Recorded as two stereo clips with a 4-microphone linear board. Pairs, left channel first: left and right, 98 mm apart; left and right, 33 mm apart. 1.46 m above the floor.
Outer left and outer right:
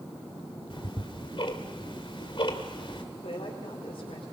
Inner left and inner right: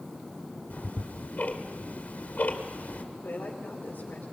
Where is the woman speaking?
70° left (ahead or behind), 4 m.